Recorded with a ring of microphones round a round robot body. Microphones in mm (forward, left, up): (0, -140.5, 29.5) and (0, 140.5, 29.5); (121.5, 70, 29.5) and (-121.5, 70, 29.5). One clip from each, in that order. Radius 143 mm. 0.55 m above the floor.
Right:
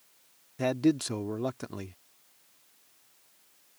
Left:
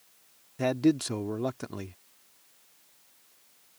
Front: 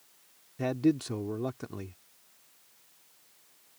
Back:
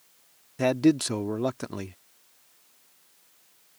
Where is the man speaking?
175° right.